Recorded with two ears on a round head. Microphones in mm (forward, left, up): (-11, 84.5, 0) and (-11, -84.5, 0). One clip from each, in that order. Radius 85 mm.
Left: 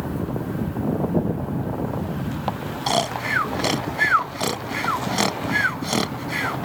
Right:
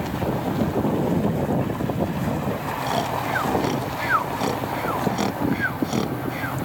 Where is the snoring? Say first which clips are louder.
Left 4 dB; 55° left (ahead or behind).